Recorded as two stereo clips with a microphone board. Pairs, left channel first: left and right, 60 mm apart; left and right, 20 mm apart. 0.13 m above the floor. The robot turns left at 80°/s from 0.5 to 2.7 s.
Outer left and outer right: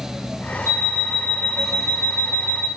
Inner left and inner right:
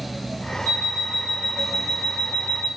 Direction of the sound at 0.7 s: 75° right.